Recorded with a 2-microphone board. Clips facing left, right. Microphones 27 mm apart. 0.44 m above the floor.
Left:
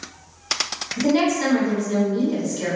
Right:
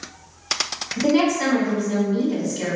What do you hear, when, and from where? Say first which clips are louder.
1.0 s a woman speaking: right 1 dB; 45° right (ahead or behind), 1.3 m